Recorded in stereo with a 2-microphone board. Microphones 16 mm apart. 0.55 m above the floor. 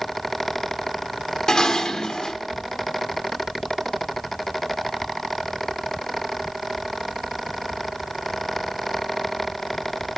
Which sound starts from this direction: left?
Dishes clattering, at 1.5 s.